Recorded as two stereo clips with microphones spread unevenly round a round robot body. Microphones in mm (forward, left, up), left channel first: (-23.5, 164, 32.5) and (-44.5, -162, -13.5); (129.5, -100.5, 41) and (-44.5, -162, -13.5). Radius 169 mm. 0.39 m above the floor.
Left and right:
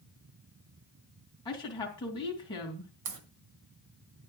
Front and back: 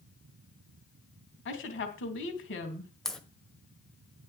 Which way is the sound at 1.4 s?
5° left.